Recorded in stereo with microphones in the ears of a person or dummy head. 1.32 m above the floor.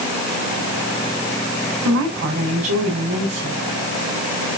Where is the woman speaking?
85° right, 5.5 m.